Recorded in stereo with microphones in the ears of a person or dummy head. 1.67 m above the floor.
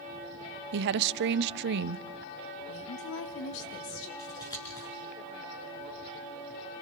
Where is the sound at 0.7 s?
65° right (ahead or behind), 0.6 m.